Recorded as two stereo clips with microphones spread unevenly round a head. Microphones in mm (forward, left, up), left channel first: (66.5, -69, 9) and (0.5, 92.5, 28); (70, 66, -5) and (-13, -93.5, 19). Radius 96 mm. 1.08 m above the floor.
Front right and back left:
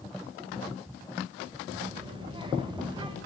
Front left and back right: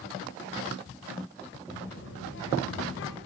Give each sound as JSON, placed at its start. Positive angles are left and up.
{"t": 1.7, "sound": "a child speaking", "azimuth_deg": 50, "distance_m": 4.5}